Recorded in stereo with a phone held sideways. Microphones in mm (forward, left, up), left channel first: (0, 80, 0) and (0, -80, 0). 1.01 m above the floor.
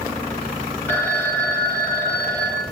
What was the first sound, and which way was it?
A phone ringing, 10° left (ahead or behind).